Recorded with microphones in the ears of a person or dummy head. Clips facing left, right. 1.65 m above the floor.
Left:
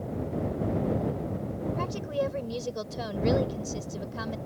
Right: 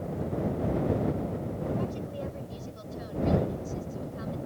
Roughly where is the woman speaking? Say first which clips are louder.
Left 4 dB; left.